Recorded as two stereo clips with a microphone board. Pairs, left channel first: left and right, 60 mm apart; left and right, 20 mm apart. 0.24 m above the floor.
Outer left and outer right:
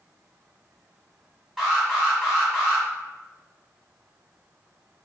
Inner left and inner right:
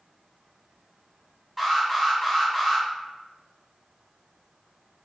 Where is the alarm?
5° right (ahead or behind), 1.7 m.